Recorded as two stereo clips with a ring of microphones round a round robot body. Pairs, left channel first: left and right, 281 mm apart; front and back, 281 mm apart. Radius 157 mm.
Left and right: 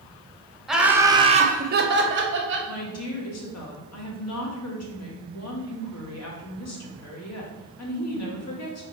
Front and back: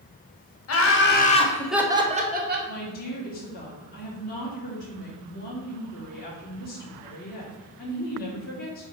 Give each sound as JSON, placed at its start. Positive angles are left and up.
{"t": 0.7, "sound": "laughter", "azimuth_deg": 0, "distance_m": 1.4}
{"t": 2.7, "sound": "a woman speaking", "azimuth_deg": 60, "distance_m": 1.9}